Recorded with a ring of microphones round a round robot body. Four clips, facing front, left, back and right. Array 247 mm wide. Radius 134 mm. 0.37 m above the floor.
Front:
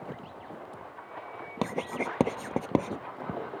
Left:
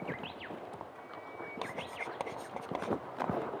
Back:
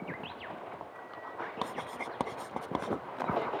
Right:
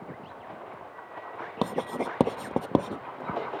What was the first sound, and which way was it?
Writing, 60° right.